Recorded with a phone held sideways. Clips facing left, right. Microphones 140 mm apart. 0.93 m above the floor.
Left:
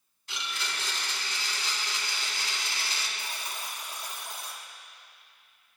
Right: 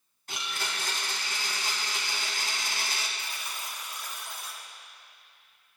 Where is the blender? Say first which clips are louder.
Right 1 dB; 50° right (ahead or behind), 1.8 m.